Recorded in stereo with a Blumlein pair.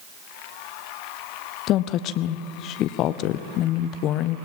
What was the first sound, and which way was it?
A woman speaking, 35° left.